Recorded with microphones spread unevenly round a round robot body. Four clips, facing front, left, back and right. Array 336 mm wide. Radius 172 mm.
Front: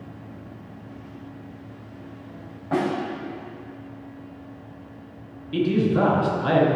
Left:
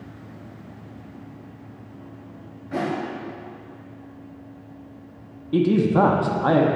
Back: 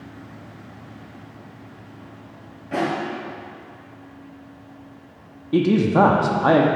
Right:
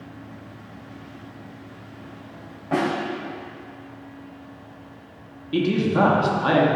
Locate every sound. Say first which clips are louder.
2.7 s a snare drum: right 3 dB, even; 60° right, 2.5 m
5.5 s a man speaking: left 2 dB, back 4 dB; 160° left, 0.8 m